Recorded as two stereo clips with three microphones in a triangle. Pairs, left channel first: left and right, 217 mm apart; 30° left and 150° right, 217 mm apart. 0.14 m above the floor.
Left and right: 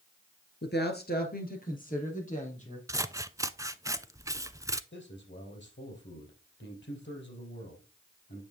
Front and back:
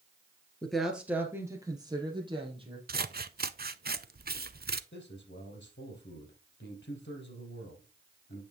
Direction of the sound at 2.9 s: 160° right.